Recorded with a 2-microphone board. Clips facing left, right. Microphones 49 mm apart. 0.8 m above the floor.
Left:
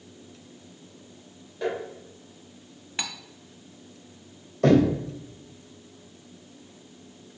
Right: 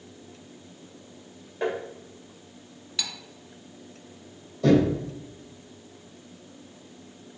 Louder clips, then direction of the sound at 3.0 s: Left 1 dB; 30° left (ahead or behind).